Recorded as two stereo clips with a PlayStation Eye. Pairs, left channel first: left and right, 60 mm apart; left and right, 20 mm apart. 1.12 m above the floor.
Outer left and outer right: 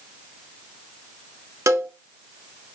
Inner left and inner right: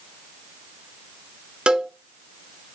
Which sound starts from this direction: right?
A cowbell, at 1.7 s.